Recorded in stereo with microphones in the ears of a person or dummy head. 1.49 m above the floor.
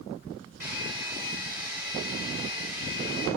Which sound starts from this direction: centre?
A hair dryer, at 0.6 s.